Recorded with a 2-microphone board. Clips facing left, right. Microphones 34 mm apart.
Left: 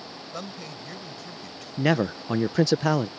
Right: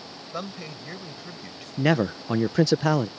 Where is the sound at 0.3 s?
20° right (ahead or behind).